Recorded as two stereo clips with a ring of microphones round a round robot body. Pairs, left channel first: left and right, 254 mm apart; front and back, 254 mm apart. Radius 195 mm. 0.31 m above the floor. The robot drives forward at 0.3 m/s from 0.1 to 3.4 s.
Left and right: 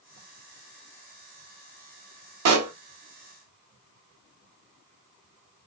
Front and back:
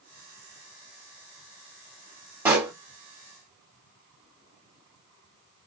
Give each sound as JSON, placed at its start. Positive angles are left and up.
{"t": 2.5, "sound": "a pop", "azimuth_deg": -100, "distance_m": 0.9}